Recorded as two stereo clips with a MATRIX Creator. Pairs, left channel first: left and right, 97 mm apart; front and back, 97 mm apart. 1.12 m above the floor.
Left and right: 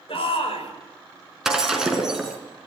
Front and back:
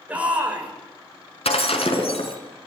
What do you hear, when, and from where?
0.1 s a shout: 105° left, 5.5 m
1.4 s breaking glass: 5° right, 4 m